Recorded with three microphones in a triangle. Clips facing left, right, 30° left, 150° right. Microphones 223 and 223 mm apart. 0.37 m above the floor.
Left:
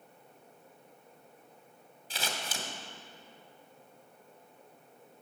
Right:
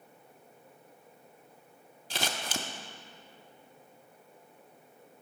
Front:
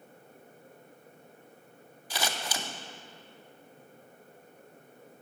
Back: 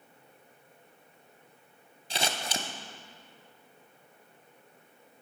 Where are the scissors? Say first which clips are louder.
Right 4 dB, back 1 dB; 85° right, 0.6 m.